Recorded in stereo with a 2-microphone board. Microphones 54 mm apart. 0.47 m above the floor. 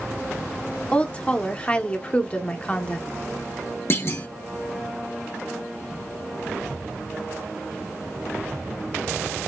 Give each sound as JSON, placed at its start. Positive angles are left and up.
{"t": 0.9, "sound": "a woman speaking", "side_deg": 20, "distance_m": 0.7}
{"t": 3.9, "sound": "a clunk", "side_deg": 45, "distance_m": 0.9}